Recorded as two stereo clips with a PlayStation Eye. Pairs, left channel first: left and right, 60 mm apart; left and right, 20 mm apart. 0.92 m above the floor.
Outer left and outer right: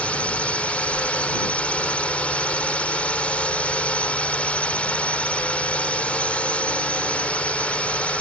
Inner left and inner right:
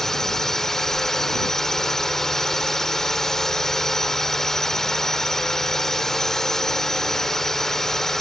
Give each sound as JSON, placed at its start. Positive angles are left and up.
{"t": 0.0, "sound": "a drone", "side_deg": 20}